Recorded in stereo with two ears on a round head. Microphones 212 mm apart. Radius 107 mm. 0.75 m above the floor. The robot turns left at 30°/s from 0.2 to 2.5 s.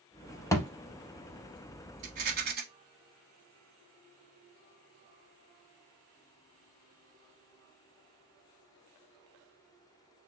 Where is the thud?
15° left (ahead or behind), 0.6 m; by 0.7 s 10° left (ahead or behind), 0.6 m.